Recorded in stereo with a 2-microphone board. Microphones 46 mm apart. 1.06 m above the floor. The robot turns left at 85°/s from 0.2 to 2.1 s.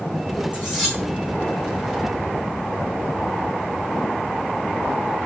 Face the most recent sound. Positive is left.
turn(degrees=65)